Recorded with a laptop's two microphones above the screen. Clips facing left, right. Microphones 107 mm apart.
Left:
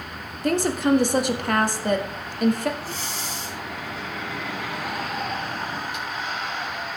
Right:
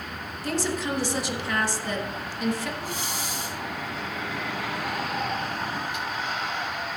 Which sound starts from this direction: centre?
Breathing, at 2.8 s.